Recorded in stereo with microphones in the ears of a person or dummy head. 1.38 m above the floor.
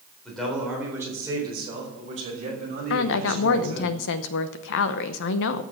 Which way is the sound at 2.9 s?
65° left (ahead or behind).